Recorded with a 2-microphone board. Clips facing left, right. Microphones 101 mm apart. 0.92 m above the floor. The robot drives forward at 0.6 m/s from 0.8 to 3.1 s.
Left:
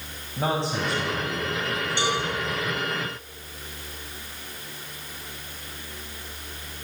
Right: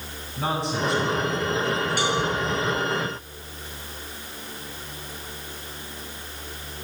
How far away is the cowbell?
About 7 m.